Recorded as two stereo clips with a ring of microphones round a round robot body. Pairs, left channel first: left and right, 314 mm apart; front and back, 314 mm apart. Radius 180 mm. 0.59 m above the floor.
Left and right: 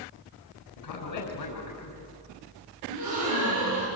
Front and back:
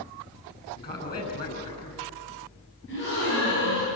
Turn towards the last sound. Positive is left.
turn(degrees=-60)